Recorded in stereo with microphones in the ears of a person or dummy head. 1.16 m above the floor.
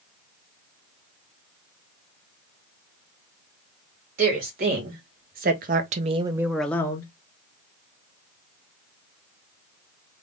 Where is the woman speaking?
45° right (ahead or behind), 1.7 m; by 7.1 s 25° left (ahead or behind), 0.7 m.